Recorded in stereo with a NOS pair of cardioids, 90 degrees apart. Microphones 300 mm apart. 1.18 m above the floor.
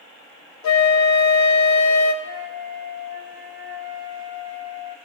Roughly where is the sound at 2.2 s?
Ahead left.